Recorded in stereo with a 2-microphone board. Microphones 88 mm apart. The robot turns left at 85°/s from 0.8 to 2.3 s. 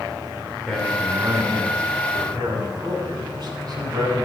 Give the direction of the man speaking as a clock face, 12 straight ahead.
12 o'clock.